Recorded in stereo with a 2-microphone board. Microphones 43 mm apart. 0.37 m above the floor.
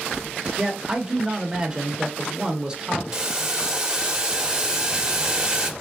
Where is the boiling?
15° right (ahead or behind), 0.9 m.